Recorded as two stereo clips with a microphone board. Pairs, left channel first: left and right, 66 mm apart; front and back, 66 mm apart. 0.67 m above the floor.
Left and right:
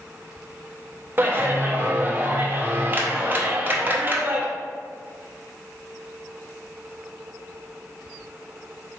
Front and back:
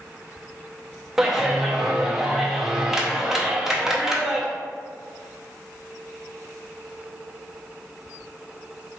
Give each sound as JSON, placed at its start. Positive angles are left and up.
{"t": 1.2, "sound": "a clap", "azimuth_deg": -100, "distance_m": 0.6}